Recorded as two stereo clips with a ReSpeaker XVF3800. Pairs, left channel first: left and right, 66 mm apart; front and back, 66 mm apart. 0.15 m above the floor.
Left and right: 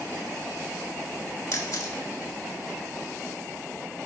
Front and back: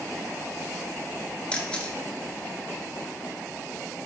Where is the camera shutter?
70° left, 0.5 m.